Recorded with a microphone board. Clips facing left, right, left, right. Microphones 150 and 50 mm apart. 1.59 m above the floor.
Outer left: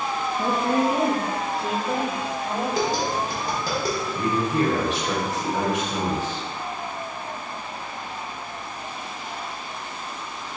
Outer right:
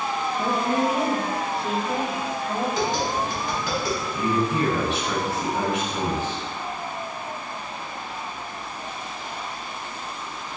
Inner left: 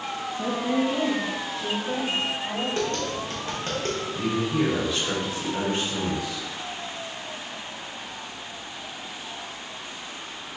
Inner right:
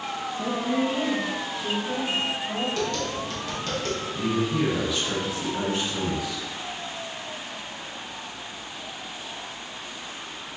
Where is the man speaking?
40° left (ahead or behind), 1.8 m.